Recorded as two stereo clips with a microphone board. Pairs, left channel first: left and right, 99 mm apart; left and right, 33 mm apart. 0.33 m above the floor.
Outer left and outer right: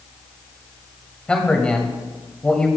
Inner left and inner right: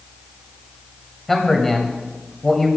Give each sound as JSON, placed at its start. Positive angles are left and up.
{"t": 1.3, "sound": "a man speaking", "side_deg": 10, "distance_m": 1.6}